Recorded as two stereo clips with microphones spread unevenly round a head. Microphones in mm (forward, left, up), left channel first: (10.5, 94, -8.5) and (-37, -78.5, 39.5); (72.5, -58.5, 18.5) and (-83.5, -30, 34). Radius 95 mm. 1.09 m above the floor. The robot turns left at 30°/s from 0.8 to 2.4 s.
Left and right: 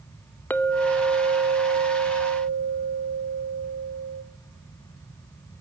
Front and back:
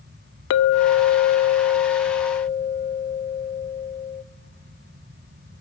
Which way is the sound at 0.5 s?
10° right.